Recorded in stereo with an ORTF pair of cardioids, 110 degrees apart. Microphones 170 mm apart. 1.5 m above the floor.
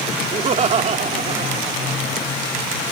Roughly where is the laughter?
Ahead right.